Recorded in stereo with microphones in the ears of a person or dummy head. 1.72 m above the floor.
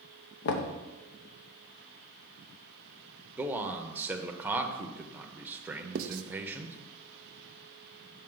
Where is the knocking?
55° left (ahead or behind), 0.7 m.